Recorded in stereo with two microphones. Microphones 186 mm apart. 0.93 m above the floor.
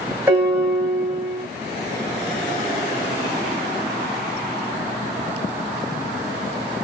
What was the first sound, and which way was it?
A piano, 10° right (ahead or behind).